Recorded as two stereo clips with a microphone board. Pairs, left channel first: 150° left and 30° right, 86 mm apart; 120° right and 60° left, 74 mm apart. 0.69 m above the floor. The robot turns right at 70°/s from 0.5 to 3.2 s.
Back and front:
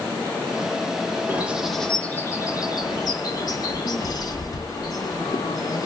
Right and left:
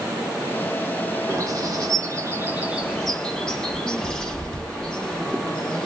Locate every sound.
1.3 s a bird: 30° left, 0.8 m; by 5.8 s 165° left, 0.8 m